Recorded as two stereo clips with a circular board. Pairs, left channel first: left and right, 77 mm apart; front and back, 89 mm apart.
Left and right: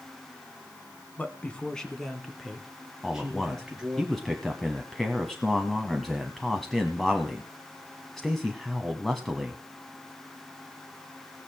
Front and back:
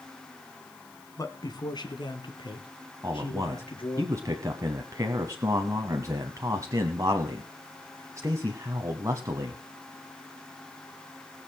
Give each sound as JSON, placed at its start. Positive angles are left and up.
{"t": 1.2, "sound": "a man speaking", "azimuth_deg": 30, "distance_m": 1.7}
{"t": 3.0, "sound": "a man speaking", "azimuth_deg": 175, "distance_m": 1.3}